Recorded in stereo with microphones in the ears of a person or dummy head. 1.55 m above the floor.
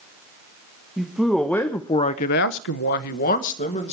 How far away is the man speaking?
About 1.9 m.